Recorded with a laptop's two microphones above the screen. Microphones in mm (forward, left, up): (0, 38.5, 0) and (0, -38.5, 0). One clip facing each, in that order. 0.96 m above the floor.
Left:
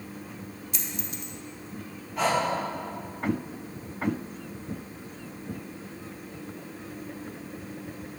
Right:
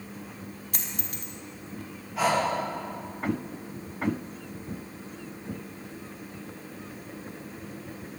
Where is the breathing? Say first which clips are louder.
Right 1 dB; 5° right (ahead or behind), 1.4 m.